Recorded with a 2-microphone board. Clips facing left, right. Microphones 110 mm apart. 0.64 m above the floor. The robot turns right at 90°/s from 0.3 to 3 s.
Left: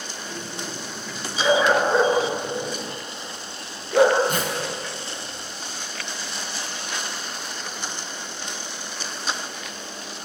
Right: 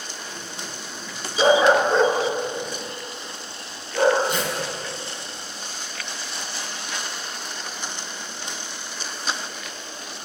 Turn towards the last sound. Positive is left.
turn(degrees=50)  # may be behind; listen again after turning